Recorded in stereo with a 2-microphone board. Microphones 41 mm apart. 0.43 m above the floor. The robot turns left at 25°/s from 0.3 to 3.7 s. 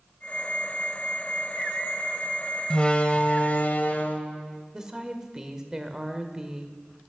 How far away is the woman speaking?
About 1.6 m.